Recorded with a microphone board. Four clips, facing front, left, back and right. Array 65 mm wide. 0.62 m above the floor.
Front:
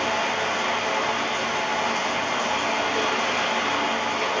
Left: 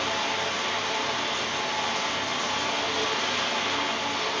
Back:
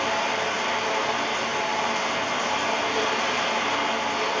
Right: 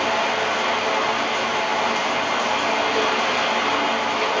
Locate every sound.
0.0 s running water: 90° right, 2 m